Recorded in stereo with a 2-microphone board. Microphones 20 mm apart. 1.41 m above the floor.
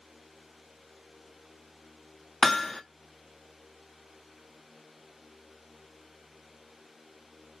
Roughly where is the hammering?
Left.